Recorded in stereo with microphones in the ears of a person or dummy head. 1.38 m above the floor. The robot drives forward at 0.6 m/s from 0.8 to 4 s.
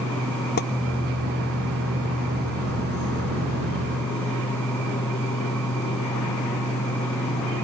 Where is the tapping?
50° left (ahead or behind).